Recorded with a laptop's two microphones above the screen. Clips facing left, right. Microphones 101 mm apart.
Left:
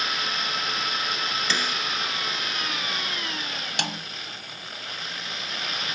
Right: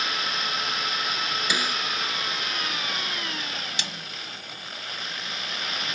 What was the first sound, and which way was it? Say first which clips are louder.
A snare drum: right 1 dB; 10° right (ahead or behind).